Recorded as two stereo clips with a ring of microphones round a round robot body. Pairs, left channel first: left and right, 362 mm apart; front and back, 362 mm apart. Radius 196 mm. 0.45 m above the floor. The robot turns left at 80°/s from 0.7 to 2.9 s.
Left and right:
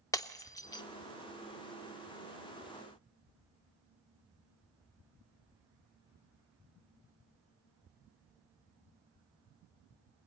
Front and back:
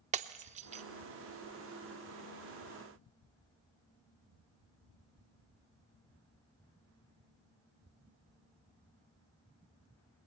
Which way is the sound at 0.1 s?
155° left.